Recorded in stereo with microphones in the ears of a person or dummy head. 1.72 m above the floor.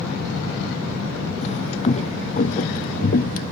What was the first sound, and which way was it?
Footsteps, 35° left (ahead or behind).